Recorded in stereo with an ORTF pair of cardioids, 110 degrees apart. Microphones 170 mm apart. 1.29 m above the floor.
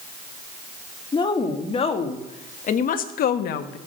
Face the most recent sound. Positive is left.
turn(degrees=75)